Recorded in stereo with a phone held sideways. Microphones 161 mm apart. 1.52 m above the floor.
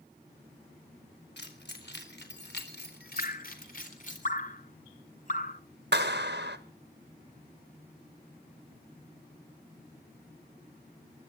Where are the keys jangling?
80° left, 4 m; by 4.2 s 50° left (ahead or behind), 4 m.